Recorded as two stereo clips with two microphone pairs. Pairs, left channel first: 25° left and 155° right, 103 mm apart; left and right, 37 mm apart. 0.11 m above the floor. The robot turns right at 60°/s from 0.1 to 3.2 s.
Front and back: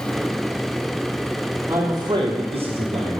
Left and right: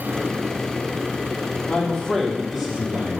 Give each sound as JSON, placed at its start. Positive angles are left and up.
{"t": 1.7, "sound": "a man speaking", "azimuth_deg": 135, "distance_m": 3.0}